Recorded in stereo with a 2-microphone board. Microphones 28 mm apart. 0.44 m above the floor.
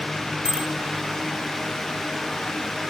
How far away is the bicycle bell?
About 2.5 m.